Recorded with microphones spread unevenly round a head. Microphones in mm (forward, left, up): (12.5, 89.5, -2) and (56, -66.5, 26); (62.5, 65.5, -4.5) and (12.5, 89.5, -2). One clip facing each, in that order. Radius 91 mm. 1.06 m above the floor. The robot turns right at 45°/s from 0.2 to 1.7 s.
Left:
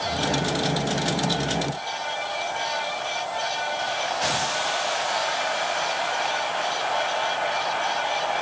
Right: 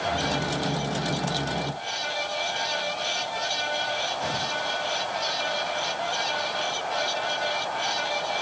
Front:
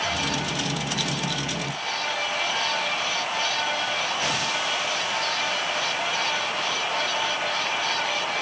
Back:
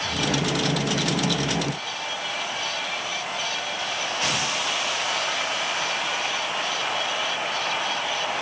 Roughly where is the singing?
I don't hear singing.